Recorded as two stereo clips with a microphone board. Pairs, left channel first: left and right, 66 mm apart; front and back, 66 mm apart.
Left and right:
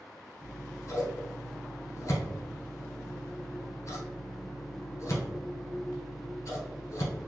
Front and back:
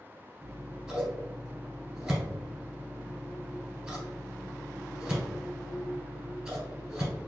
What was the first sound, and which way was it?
Scissors, 100° left.